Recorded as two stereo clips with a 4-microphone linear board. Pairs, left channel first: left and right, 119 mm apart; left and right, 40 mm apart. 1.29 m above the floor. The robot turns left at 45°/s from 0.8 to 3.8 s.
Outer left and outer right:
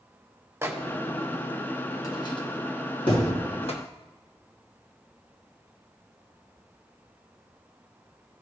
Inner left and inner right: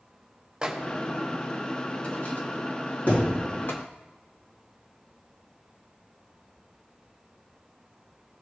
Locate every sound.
0.6 s a microwave: 20° right (ahead or behind), 0.9 m; by 3.8 s 60° left (ahead or behind), 0.9 m
3.1 s a thud: 50° left (ahead or behind), 3 m; by 3.4 s 40° left (ahead or behind), 3 m